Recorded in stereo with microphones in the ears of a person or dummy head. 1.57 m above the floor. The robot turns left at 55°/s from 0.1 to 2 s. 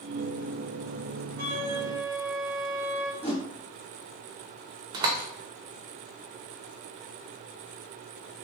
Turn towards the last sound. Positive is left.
turn(degrees=-20)  # may be behind; listen again after turning